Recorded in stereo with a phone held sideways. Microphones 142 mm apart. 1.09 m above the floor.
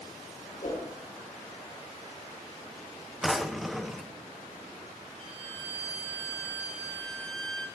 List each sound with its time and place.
0.6 s a whoosh: 70° left (ahead or behind), 7 m
3.2 s a drawer: centre (ahead or behind), 0.7 m
5.2 s a violin: 55° left (ahead or behind), 2.5 m